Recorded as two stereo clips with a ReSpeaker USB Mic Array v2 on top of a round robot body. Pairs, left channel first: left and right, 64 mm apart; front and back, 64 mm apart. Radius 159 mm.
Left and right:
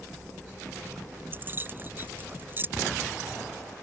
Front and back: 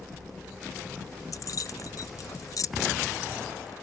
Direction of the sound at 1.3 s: 35° right.